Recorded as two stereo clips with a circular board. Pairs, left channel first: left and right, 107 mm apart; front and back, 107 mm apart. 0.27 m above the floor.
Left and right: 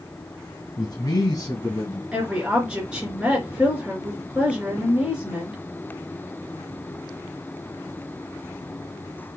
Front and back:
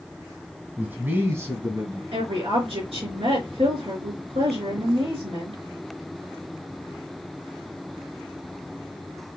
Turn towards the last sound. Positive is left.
turn(degrees=-170)